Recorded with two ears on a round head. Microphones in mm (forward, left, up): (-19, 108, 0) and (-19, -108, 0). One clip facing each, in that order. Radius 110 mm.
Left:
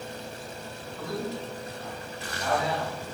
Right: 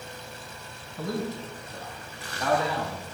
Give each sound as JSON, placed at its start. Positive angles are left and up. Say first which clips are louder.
{"t": 1.0, "sound": "a man speaking", "louder": "right 2 dB", "side_deg": -30, "distance_m": 5.5}